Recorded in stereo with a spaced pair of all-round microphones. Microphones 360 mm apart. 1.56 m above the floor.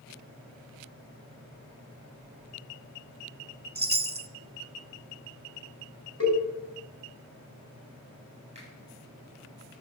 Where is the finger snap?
20° right (ahead or behind), 8 m.